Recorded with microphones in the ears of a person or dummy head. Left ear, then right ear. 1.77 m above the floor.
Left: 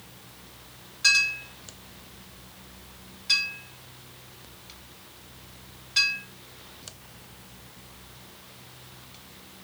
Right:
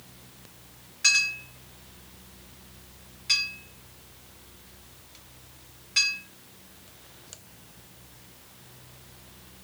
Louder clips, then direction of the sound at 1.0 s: Left 1 dB; 15° right (ahead or behind).